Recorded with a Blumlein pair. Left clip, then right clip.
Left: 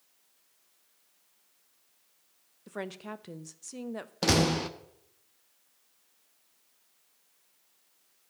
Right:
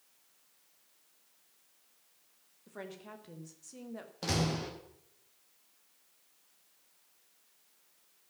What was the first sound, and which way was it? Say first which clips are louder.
A woman speaking: left 7 dB; 65° left.